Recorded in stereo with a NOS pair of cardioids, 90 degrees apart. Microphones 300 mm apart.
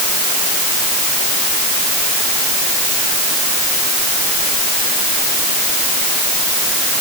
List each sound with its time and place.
Only background noise.